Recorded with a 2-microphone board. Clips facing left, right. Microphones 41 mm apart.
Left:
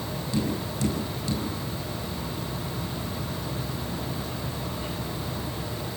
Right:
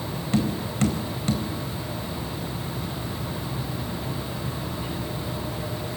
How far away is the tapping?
About 4.5 m.